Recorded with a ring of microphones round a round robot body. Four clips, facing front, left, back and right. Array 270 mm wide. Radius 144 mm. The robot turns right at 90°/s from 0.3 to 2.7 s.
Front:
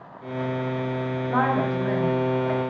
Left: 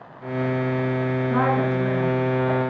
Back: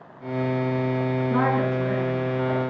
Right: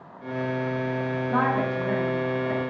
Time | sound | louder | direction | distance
1.3 | a woman speaking | left 2 dB, front 1 dB | 30° right | 3.5 m